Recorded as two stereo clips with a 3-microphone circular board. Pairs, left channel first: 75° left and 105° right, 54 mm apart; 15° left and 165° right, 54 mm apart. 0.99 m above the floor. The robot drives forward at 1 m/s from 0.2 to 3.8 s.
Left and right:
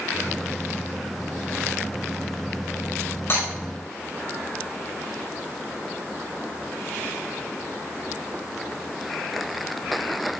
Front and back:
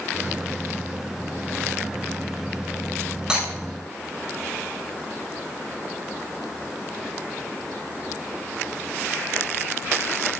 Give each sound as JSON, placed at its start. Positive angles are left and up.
{"t": 3.3, "sound": "breaking glass", "azimuth_deg": 120, "distance_m": 5.0}